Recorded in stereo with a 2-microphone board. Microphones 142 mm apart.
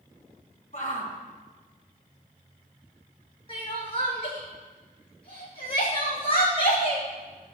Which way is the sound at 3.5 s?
35° left (ahead or behind).